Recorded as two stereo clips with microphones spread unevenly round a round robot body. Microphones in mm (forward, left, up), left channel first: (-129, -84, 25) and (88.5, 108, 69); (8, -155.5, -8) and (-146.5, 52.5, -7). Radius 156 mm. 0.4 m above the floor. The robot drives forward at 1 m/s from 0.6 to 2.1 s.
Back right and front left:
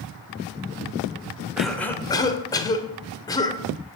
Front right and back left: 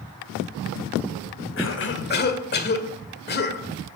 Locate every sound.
1.6 s a cough: 55° right, 1.9 m; by 3.6 s 80° right, 1.7 m